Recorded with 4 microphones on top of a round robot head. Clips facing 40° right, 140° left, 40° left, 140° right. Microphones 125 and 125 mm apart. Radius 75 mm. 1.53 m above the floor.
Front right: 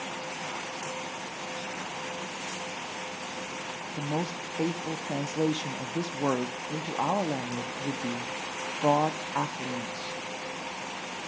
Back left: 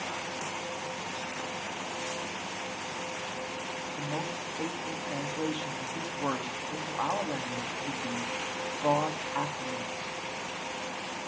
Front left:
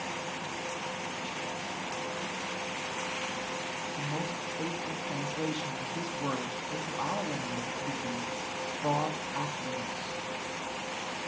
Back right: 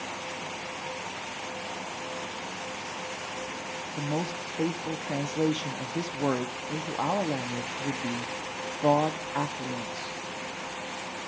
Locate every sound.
3.9 s a woman speaking: 95° right, 0.7 m